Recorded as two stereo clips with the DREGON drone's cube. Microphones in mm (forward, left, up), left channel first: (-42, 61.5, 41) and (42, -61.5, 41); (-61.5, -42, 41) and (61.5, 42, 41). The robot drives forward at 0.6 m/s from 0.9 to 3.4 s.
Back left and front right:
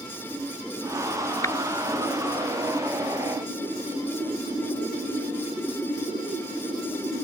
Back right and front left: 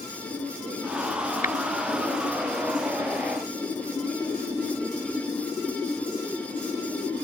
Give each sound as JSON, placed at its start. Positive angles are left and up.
{"t": 1.4, "sound": "tapping", "azimuth_deg": -165}